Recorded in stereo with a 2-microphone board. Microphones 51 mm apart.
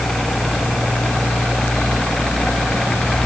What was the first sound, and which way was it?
Only background noise.